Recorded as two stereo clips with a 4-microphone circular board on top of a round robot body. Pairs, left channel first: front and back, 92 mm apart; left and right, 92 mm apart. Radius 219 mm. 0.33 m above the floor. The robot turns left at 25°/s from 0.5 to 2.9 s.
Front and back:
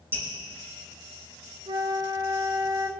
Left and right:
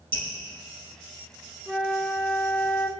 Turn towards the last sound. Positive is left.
turn(degrees=150)